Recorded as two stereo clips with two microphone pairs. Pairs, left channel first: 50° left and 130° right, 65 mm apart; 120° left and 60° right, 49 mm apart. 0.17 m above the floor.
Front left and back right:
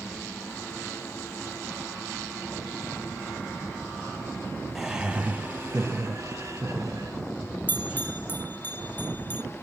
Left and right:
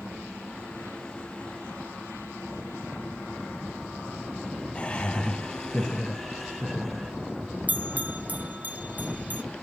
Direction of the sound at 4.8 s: 150° left.